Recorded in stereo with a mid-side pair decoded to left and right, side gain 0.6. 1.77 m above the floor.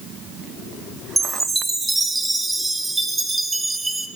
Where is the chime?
10° right, 1.6 m.